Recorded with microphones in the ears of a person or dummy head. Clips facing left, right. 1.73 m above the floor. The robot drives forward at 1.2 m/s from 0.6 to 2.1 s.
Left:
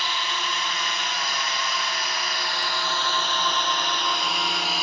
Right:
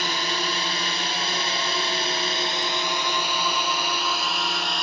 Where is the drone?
30° right (ahead or behind); by 4.8 s 5° left (ahead or behind).